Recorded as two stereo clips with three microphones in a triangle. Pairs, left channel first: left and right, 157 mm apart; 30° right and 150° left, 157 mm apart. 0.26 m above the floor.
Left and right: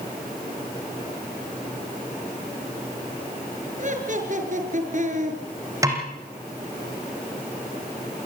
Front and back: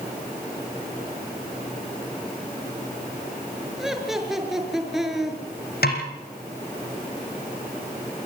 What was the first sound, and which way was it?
Laughter, 120° right.